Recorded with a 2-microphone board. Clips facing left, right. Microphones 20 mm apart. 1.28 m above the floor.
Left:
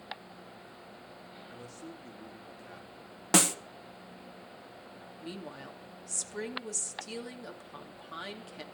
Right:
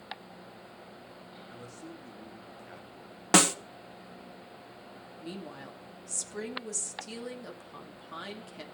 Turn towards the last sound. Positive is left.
turn(degrees=5)  # may be behind; listen again after turning